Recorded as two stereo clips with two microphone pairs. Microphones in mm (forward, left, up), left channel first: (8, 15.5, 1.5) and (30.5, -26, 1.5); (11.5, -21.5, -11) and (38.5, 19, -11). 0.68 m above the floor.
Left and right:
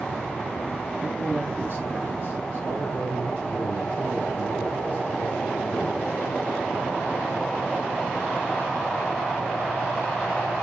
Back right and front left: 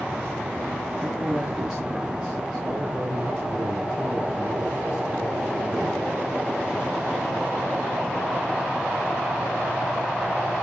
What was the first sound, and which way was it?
A man speaking, 45° right.